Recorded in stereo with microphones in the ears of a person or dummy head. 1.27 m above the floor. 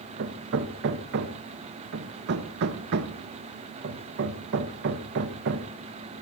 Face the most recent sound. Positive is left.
turn(degrees=-60)  # may be behind; listen again after turning